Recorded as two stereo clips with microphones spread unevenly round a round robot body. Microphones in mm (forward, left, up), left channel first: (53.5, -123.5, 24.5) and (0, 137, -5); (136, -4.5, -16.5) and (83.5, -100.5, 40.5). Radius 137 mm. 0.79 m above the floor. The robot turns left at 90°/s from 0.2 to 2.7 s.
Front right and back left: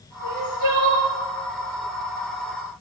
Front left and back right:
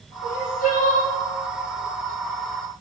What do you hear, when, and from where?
0.2 s crying: 130° left, 2.0 m; by 1.1 s 50° left, 2.0 m